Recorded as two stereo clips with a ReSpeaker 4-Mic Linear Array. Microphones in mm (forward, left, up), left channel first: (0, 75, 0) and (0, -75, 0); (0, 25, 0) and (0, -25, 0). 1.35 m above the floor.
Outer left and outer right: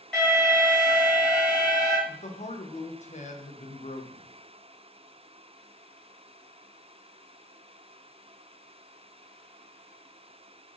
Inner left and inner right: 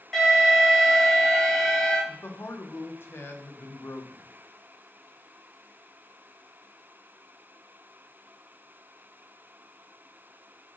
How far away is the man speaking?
About 1.3 m.